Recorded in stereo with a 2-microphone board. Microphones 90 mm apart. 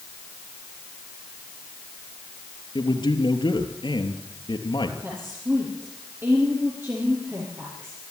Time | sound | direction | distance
2.8 | a man speaking | 65° left (ahead or behind) | 3 m
5.0 | a woman speaking | 25° right (ahead or behind) | 6 m